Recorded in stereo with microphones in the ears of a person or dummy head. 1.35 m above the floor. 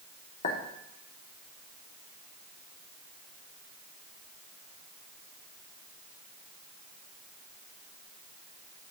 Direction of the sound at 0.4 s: 40° left (ahead or behind).